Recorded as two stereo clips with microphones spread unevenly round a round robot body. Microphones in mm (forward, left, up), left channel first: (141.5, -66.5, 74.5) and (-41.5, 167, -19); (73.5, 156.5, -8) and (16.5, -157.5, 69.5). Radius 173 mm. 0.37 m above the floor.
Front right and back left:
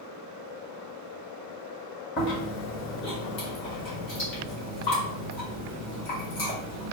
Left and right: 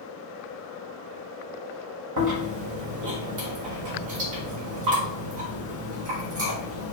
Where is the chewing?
110° right, 1.9 m.